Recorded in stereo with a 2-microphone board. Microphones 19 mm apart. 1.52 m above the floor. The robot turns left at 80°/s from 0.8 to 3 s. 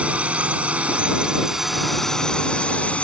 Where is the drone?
100° right; by 3.0 s 85° left.